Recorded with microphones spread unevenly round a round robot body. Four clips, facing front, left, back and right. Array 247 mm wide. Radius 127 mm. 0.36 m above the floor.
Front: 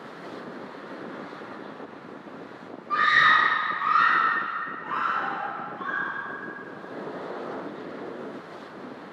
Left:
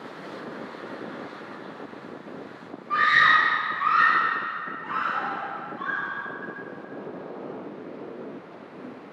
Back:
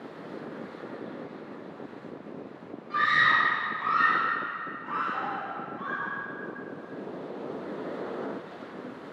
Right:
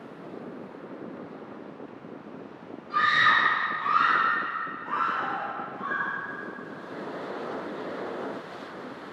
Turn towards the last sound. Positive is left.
turn(degrees=80)